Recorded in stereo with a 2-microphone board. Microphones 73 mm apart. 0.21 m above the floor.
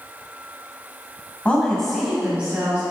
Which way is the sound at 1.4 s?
20° left (ahead or behind).